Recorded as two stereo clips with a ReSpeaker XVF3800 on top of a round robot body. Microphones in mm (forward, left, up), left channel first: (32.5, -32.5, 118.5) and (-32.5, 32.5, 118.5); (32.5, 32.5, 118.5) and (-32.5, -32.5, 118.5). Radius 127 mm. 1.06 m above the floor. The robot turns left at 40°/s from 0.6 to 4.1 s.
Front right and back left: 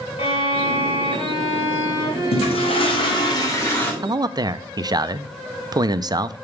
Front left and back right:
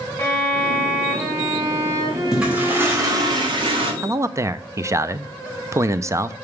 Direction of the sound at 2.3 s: 50° right.